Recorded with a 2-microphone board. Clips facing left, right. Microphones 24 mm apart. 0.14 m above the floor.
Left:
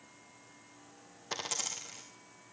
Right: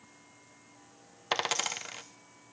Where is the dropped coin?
40° right (ahead or behind), 0.8 m.